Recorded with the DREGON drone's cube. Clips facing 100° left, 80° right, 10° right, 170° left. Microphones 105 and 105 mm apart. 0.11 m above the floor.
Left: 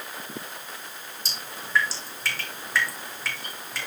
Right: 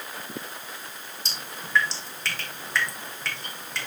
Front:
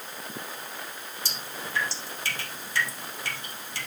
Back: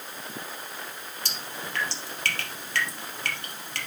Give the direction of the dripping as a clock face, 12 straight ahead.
6 o'clock.